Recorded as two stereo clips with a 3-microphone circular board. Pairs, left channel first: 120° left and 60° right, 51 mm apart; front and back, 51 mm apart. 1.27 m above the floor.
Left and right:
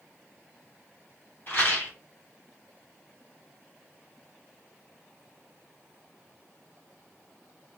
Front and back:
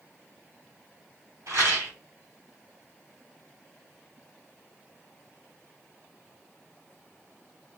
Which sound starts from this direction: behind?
A rattle, at 1.5 s.